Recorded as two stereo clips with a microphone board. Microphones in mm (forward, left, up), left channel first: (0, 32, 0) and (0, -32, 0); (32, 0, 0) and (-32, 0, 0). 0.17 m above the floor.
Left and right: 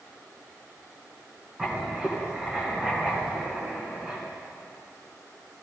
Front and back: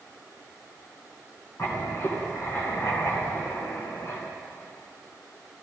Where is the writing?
20° right, 2 m.